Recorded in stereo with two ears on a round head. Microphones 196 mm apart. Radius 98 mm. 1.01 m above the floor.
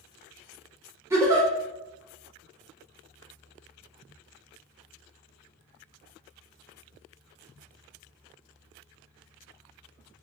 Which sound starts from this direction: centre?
A giggle, at 1.1 s.